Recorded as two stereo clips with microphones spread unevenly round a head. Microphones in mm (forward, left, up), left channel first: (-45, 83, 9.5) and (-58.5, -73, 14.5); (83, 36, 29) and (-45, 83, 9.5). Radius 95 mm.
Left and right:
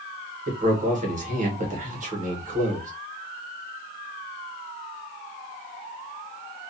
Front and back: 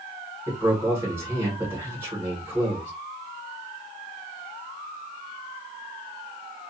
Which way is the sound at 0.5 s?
130° right.